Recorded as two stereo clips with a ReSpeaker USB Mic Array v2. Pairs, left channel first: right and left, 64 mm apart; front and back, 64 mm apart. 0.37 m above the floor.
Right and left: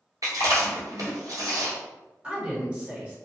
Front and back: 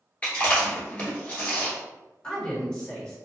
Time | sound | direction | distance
0.2 | chewing | 70° left | 1.3 m
2.2 | a woman speaking | 60° left | 1.0 m